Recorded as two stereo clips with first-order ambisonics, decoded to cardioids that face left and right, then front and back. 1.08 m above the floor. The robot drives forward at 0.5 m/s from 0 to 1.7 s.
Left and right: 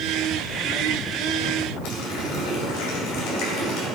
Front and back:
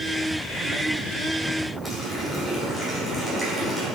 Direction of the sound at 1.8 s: 85° left.